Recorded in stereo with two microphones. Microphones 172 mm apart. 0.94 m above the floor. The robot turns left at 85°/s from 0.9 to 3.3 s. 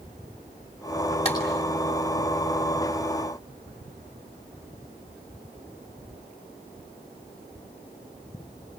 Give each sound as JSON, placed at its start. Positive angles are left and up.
{"t": 1.2, "sound": "a clap", "side_deg": 35, "distance_m": 6.5}